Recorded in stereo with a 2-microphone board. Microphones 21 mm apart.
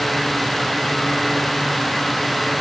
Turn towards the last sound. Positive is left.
No sound to turn to.